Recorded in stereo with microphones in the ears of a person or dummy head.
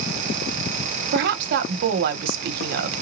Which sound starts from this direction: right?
A woman speaking, at 1.1 s.